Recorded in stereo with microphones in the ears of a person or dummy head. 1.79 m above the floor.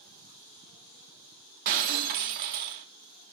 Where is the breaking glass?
45° right (ahead or behind), 1.5 m.